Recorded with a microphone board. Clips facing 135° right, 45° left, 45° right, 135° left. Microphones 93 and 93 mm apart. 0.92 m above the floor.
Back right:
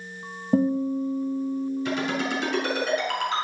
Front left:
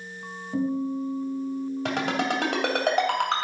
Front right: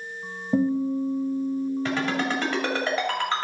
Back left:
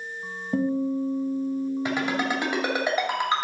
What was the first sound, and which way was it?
A guitar, 120° right.